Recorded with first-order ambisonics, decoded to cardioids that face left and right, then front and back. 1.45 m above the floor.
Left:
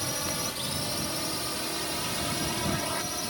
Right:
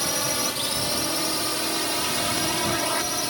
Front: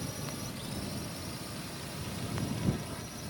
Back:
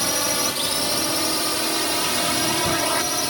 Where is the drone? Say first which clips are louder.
Right 6 dB, back 19 dB; 155° right; by 3.3 s 160° right.